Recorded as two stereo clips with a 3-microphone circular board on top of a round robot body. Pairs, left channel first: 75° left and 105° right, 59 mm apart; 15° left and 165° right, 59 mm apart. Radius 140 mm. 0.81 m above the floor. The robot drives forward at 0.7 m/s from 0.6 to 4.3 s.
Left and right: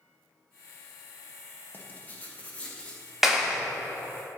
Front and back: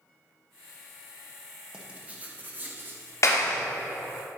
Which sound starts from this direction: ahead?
A clap, at 3.2 s.